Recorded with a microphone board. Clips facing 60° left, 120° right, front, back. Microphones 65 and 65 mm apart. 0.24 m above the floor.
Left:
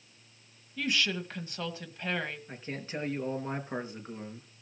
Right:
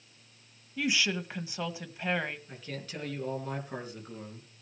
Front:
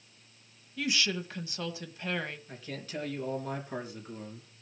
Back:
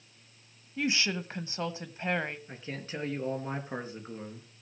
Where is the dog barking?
No dog barking in this recording.